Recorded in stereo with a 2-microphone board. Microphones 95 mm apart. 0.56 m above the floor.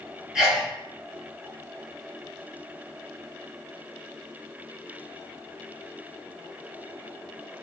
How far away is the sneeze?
About 0.8 m.